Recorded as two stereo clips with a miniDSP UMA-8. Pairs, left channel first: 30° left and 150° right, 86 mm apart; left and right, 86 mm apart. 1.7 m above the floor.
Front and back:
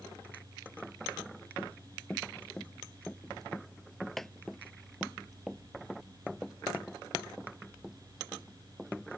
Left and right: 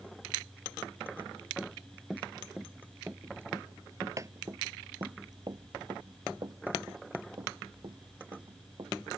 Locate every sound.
1.6 s running footsteps: 30° left; by 8.9 s 70° right